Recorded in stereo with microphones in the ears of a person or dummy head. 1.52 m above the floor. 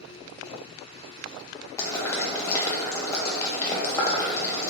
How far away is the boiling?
About 0.9 m.